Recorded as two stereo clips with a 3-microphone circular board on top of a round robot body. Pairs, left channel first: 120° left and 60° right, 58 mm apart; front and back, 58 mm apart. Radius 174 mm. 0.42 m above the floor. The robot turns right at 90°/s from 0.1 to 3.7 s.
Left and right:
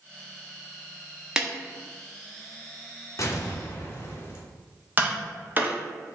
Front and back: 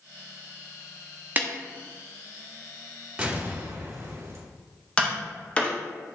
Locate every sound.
1.4 s a snare drum: 135° right, 1.1 m; by 1.5 s 120° right, 1.1 m
3.2 s an explosion: 110° left, 1.8 m; by 4.4 s 155° left, 1.8 m
5.0 s tapping: 50° right, 1.5 m